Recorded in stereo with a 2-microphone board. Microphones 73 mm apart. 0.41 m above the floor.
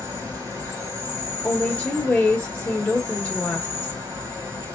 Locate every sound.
0.0 s an insect: 35° right (ahead or behind), 2.5 m
1.4 s a woman speaking: 20° left (ahead or behind), 1.0 m